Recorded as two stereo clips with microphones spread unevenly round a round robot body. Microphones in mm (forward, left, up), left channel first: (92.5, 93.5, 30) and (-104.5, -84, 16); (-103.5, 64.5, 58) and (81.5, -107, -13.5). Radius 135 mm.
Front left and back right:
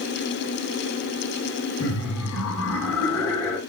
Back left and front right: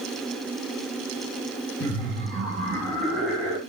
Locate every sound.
1.8 s laughter: 30° left, 1.6 m